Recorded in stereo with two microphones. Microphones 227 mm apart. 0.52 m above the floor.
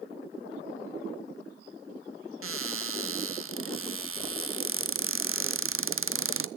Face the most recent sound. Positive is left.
turn(degrees=-70)  # may be behind; listen again after turning